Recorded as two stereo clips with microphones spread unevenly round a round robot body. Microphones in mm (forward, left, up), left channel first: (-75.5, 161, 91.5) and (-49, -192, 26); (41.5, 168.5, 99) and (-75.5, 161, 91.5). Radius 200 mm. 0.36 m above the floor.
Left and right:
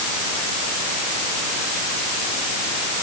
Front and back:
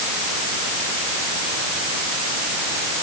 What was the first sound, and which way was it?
Only background noise.